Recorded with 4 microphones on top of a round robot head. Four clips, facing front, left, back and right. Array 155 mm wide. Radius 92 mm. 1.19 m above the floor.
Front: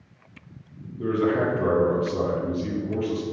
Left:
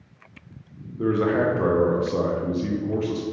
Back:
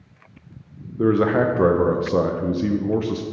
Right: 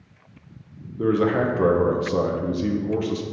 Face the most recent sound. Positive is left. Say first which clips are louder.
# right 1 dB, back 5 dB
turn(degrees=-170)